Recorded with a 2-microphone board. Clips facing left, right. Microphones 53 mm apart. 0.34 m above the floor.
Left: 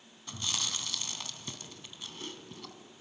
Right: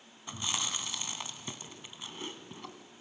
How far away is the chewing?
About 2.5 m.